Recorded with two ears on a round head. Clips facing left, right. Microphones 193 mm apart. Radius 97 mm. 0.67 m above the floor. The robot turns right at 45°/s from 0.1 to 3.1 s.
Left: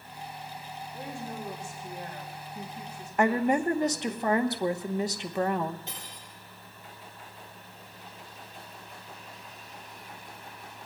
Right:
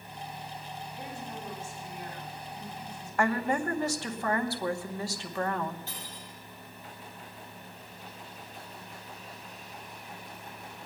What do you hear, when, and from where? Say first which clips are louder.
0.9 s a woman speaking: left 5 dB; 15° right, 3.5 m; by 4.2 s 85° left, 3.5 m
3.2 s a woman speaking: left 4 dB; 20° left (ahead or behind), 0.9 m
5.9 s cutlery clinking: right 1 dB; 20° left (ahead or behind), 9.5 m